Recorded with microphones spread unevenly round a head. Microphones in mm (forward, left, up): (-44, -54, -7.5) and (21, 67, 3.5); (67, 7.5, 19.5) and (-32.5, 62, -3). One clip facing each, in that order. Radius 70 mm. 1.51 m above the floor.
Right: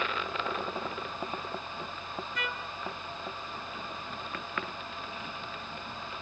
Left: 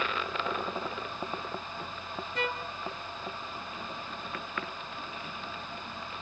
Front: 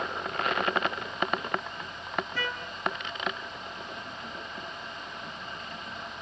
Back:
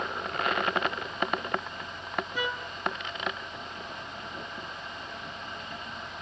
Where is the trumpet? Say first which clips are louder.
Left 4 dB, back 2 dB; 70° left, 0.8 m.